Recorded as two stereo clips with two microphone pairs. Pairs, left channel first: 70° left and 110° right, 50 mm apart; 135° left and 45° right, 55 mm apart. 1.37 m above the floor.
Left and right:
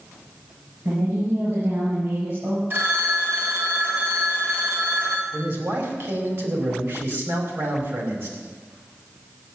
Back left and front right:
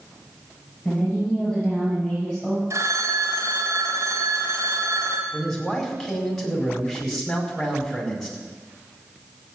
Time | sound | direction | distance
0.8 | a woman speaking | 150° right | 7.5 m
2.7 | a phone ringing | 70° right | 3.5 m
5.3 | a man speaking | 140° right | 5 m